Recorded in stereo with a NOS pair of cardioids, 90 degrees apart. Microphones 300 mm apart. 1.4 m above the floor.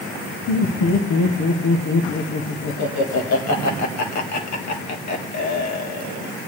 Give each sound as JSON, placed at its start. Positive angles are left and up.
{"t": 0.5, "sound": "laughter", "azimuth_deg": 65, "distance_m": 1.8}